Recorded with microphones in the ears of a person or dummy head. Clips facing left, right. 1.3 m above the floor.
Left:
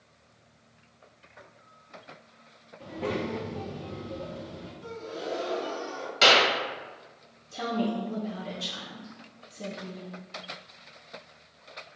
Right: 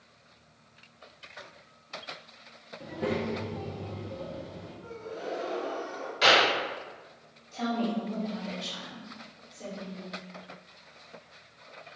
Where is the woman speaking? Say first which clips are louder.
Left 1 dB; 40° left (ahead or behind), 1.0 m.